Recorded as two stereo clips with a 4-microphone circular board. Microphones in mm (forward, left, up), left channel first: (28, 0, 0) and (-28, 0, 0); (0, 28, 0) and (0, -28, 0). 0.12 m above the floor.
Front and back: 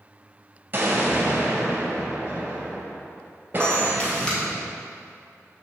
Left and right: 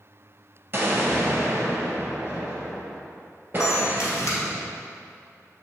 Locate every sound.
0.7 s an explosion: 135° right, 1.5 m
3.6 s a camera shutter: 70° left, 2 m